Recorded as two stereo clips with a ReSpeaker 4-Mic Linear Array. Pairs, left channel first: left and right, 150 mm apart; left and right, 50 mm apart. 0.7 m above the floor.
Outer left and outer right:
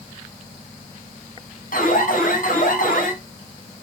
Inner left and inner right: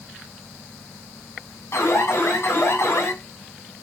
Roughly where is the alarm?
Left.